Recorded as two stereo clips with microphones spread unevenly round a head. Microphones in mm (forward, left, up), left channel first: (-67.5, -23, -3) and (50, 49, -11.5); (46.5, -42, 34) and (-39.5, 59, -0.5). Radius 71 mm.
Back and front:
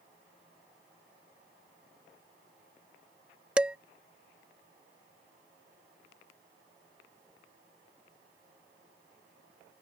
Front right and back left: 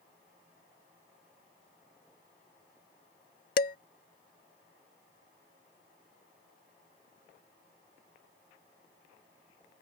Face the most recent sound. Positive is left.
turn(degrees=-50)